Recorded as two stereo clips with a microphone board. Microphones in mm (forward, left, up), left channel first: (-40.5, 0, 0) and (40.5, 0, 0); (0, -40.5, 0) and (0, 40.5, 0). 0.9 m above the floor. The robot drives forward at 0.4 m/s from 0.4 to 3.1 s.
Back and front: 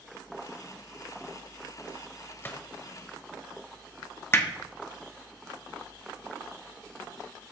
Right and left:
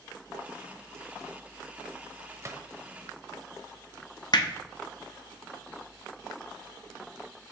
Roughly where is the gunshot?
Behind left.